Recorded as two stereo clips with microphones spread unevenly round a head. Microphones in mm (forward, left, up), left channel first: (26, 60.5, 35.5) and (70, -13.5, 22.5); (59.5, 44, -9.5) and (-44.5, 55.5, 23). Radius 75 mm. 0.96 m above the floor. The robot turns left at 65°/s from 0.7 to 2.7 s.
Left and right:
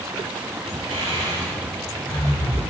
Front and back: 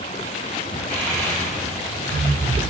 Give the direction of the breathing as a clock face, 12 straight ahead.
3 o'clock.